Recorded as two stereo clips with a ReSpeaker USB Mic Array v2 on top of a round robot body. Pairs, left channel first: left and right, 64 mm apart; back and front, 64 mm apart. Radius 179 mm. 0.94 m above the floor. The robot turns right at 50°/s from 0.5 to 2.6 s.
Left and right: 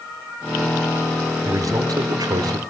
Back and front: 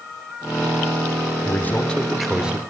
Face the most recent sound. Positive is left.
turn(degrees=-70)